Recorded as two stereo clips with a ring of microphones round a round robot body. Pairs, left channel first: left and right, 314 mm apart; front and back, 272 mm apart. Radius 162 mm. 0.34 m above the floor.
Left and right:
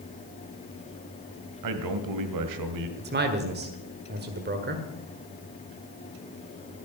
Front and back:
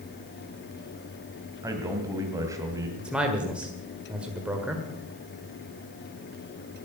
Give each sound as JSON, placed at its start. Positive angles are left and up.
{"t": 1.6, "sound": "a man speaking", "azimuth_deg": -100, "distance_m": 1.9}
{"t": 3.0, "sound": "a man speaking", "azimuth_deg": -95, "distance_m": 1.6}